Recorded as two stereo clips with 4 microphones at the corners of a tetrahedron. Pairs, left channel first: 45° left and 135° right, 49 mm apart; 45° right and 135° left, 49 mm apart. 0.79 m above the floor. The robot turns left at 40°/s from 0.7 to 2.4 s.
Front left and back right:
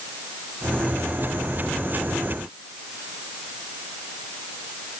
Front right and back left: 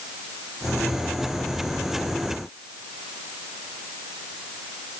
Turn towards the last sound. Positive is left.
No sound to turn to.